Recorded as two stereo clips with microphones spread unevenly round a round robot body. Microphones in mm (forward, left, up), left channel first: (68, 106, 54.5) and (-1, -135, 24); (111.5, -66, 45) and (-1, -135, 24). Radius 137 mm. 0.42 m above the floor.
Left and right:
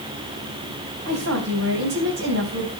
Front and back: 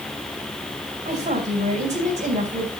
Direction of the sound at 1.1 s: 130° right.